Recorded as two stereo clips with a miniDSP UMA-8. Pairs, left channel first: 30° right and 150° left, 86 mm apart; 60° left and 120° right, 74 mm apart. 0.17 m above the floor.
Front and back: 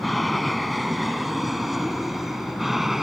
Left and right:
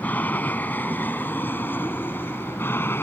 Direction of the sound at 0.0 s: 55° left.